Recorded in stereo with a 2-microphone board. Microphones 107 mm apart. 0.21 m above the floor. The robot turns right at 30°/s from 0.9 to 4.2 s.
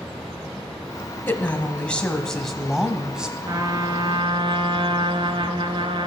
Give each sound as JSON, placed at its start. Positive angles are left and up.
{"t": 1.3, "sound": "a woman speaking", "side_deg": 20, "distance_m": 1.1}
{"t": 3.5, "sound": "a trumpet", "side_deg": -40, "distance_m": 0.8}